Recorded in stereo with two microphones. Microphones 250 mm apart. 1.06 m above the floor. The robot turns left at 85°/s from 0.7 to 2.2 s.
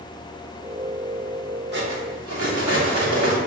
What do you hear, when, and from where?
1.7 s cutlery clinking: 45° right, 1.2 m; by 3.4 s 85° right, 1.2 m